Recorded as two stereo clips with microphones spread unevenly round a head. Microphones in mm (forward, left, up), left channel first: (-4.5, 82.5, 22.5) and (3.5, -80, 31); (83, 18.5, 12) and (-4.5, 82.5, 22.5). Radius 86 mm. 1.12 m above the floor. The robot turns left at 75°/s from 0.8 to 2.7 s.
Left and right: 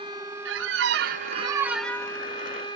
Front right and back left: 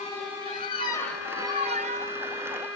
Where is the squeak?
100° right, 0.5 m; by 2.2 s 160° left, 0.5 m.